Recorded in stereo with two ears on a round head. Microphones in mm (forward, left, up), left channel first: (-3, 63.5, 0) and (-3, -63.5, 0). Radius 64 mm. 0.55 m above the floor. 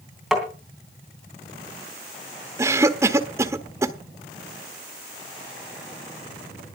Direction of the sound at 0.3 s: Centre (ahead or behind).